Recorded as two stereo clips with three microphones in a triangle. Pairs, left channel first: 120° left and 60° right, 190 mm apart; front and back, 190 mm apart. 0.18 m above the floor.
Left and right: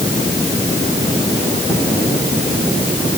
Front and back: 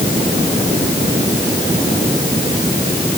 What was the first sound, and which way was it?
Only background noise.